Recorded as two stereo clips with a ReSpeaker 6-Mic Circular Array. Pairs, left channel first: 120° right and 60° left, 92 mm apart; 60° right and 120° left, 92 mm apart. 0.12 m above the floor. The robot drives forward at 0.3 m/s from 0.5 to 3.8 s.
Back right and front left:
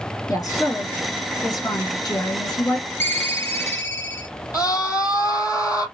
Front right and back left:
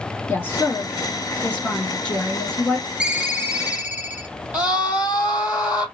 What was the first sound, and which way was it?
A woman speaking, 120° right.